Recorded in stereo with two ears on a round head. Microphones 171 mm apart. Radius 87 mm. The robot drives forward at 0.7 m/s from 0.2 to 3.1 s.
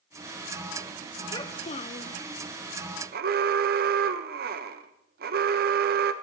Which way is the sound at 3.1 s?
55° right (ahead or behind).